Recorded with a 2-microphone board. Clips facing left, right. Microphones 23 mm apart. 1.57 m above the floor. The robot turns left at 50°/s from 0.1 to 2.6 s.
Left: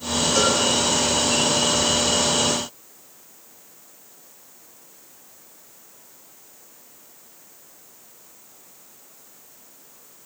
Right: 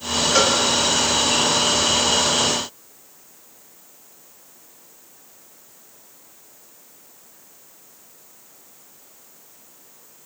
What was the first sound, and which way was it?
A cowbell, 35° right (ahead or behind).